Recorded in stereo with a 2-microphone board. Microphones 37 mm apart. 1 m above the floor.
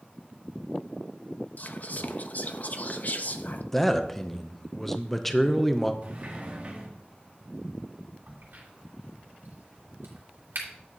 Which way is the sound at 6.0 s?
40° right (ahead or behind).